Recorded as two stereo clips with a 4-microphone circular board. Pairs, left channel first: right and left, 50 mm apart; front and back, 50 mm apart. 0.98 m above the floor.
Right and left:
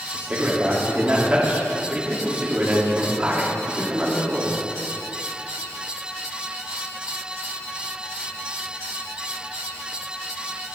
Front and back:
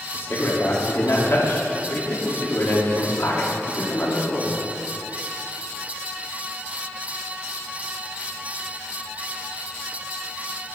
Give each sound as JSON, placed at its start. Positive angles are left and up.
{"t": 0.1, "sound": "a man speaking", "azimuth_deg": 30, "distance_m": 3.0}